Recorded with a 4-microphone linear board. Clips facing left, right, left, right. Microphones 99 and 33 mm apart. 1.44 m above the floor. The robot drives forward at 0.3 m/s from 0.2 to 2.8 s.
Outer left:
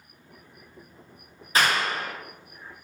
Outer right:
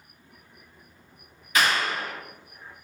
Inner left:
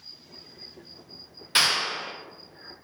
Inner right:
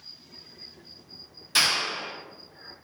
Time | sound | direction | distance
1.6 | a clap | 35° left (ahead or behind) | 0.8 m